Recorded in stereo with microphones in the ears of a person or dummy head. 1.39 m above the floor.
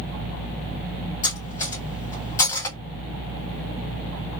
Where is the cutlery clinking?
20° left (ahead or behind), 1.4 m.